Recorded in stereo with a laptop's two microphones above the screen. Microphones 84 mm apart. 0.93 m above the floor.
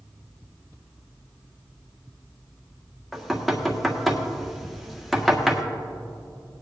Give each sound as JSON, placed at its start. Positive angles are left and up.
{"t": 3.1, "sound": "knocking", "side_deg": 0, "distance_m": 1.5}